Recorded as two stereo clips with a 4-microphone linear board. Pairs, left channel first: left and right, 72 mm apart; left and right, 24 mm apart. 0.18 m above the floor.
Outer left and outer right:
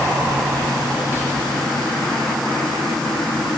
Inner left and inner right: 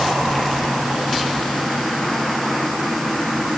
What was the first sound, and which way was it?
Only background noise.